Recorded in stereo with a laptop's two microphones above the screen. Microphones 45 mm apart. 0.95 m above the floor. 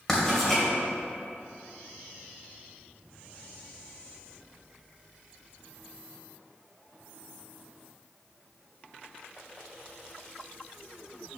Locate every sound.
0.1 s writing: 10° left (ahead or behind), 2 m